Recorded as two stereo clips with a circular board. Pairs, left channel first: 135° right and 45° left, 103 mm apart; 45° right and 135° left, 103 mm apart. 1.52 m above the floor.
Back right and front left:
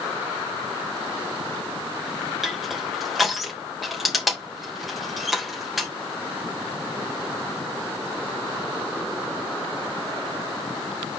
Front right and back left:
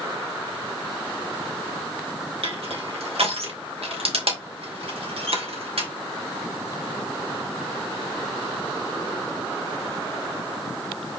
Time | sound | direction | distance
2.4 | crushing | 135° left | 3 m